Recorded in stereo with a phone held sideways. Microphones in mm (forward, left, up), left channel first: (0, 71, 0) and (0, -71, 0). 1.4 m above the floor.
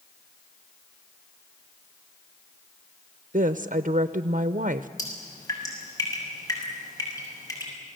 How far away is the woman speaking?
About 0.6 m.